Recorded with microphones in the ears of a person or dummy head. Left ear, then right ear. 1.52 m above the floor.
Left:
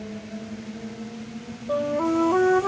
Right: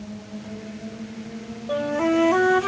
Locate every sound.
1.7 s a flute: 85° right